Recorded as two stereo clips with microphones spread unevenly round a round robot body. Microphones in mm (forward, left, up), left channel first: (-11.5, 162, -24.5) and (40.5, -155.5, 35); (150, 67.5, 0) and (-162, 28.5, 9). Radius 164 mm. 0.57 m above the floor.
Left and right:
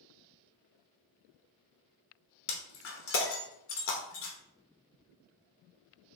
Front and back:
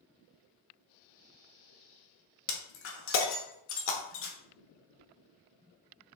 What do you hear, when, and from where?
2.5 s breaking glass: 55° left, 1.0 m